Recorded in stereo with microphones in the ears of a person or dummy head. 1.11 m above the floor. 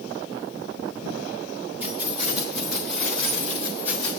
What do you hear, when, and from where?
1.8 s keys jangling: 10° right (ahead or behind), 2.5 m; by 4.1 s 10° left (ahead or behind), 3 m